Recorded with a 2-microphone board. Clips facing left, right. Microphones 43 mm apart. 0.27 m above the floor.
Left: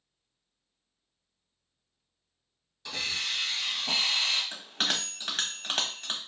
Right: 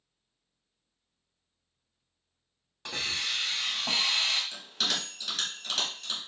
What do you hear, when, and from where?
2.9 s a hiss: 50° right (ahead or behind), 1.6 m
4.5 s a bell: 40° left (ahead or behind), 0.9 m